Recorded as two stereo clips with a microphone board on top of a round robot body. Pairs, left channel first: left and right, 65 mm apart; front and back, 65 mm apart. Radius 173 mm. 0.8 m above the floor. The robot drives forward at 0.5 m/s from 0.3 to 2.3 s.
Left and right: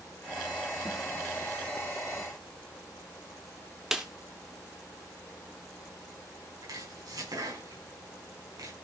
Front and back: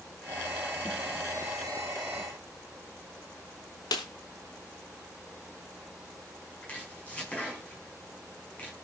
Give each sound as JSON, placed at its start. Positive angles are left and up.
{"t": 3.9, "sound": "a snare drum", "azimuth_deg": -5, "distance_m": 0.6}
{"t": 6.6, "sound": "chopping", "azimuth_deg": -70, "distance_m": 8.0}